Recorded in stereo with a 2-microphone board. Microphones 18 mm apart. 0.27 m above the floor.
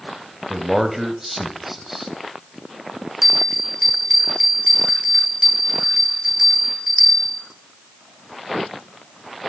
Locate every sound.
0.5 s a man speaking: 15° right (ahead or behind), 1.1 m
3.2 s a bell: 5° right (ahead or behind), 1.8 m